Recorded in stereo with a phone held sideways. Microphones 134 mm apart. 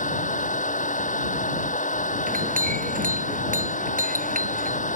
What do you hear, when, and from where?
0.0 s a fan: 70° left (ahead or behind)
2.3 s a clink: 85° right